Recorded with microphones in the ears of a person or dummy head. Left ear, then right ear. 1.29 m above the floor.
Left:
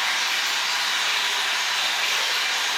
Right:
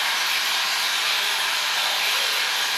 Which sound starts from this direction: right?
Running water, at 0.0 s.